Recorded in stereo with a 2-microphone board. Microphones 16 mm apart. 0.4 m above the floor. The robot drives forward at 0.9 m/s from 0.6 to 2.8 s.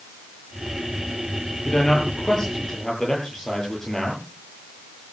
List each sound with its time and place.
1.6 s a man speaking: 40° left (ahead or behind), 9.5 m; by 4.2 s 35° left (ahead or behind), 10 m